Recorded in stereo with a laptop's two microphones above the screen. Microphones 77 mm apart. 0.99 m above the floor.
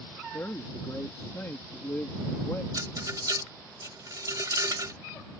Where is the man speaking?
30° left (ahead or behind).